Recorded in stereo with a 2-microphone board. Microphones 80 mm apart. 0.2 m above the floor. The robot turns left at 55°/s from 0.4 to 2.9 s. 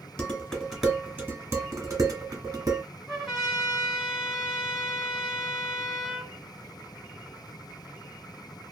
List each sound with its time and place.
0.2 s dishes clattering: 15° left (ahead or behind), 1.3 m; by 2.8 s 45° right (ahead or behind), 1.3 m
3.1 s a trumpet: centre (ahead or behind), 1.5 m